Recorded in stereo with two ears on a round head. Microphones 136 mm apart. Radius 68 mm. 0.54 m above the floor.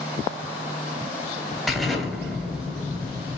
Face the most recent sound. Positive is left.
turn(degrees=0)  # may be behind; listen again after turning